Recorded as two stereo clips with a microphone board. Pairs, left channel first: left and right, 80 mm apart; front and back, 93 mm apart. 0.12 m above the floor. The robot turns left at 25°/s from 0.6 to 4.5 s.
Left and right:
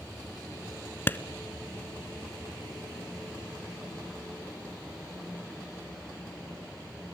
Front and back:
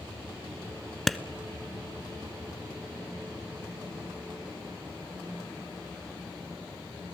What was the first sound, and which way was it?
A clap, 85° left.